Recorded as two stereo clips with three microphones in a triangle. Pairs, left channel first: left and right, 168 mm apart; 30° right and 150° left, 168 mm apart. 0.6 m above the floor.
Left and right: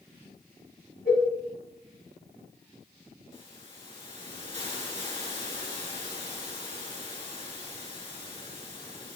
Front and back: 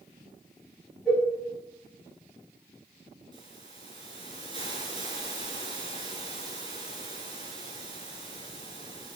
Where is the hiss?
30° left, 4 m.